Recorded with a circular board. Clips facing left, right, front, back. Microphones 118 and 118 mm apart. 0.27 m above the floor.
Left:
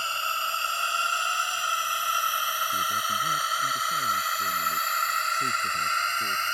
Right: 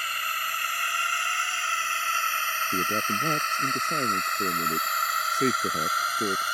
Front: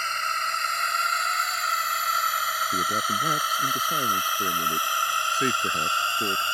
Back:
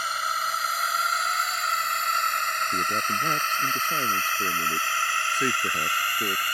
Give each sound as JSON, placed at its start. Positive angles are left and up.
{"t": 0.0, "sound": "a drone", "azimuth_deg": 105}
{"t": 2.7, "sound": "a man speaking", "azimuth_deg": -90}